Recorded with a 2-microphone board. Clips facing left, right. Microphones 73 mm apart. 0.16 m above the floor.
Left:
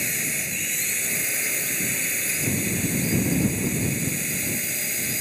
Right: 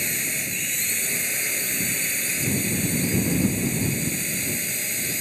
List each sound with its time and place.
0.0 s a drone: centre (ahead or behind)